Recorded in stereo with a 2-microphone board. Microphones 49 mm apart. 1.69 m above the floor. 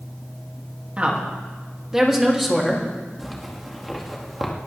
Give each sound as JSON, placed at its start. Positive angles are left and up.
{"t": 1.0, "sound": "a woman speaking", "side_deg": -25, "distance_m": 3.0}
{"t": 3.2, "sound": "a zipper", "side_deg": 0, "distance_m": 2.0}